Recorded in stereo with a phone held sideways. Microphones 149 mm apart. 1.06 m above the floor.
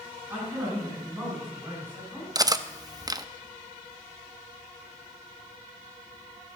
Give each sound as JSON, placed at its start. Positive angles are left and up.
{"t": 0.3, "sound": "a man speaking", "side_deg": -10, "distance_m": 8.0}
{"t": 2.4, "sound": "cutlery clinking", "side_deg": -25, "distance_m": 0.5}